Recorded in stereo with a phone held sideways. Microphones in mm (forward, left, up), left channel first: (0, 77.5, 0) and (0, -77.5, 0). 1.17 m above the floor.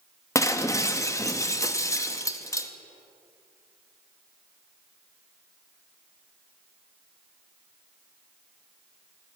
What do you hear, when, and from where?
0.3 s breaking glass: 20° left (ahead or behind), 0.7 m